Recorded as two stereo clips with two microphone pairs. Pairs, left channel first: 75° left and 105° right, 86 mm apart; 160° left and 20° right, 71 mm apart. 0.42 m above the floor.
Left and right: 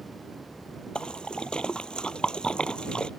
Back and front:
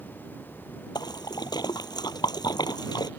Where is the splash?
155° left.